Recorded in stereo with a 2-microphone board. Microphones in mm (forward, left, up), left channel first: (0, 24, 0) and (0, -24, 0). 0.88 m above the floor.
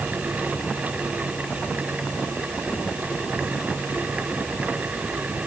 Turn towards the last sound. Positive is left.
No sound to turn to.